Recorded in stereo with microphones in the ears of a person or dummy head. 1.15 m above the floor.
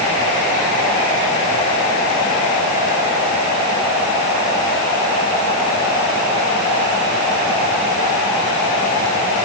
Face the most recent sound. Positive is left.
No sound to turn to.